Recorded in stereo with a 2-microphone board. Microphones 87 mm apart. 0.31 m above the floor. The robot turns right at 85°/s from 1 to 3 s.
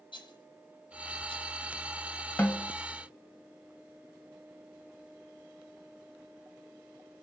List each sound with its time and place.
0.1 s a rattle: 70° left (ahead or behind), 1.8 m
2.4 s a snare drum: 25° left (ahead or behind), 1.3 m; by 2.7 s 10° left (ahead or behind), 1.3 m